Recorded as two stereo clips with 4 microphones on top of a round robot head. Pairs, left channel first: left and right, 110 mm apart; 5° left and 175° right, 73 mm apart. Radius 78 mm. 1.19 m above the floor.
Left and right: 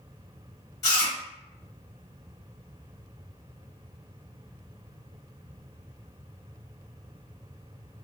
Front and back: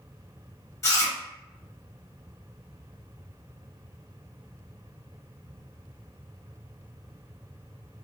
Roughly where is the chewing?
Ahead left.